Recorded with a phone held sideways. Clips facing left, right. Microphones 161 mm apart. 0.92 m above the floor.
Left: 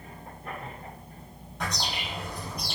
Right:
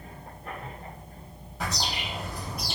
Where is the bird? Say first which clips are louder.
Right 1 dB; 5° right (ahead or behind), 1.7 m.